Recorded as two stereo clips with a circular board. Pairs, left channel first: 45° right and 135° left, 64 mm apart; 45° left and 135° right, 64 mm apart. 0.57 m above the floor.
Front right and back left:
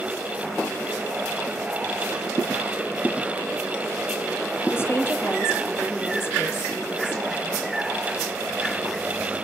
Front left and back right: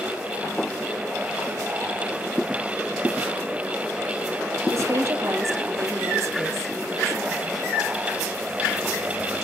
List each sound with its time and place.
4.7 s a woman speaking: 95° right, 4 m